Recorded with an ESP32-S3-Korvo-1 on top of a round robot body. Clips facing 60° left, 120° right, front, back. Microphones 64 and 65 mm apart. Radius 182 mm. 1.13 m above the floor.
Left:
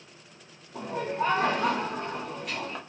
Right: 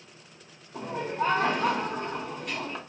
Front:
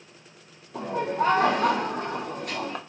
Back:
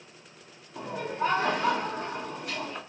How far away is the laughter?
About 0.7 m.